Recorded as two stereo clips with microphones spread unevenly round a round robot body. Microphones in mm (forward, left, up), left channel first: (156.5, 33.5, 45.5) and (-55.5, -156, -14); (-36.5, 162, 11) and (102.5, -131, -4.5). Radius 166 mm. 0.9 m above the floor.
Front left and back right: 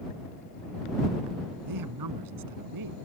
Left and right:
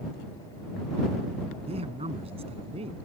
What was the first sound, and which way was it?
A man speaking, 140° right.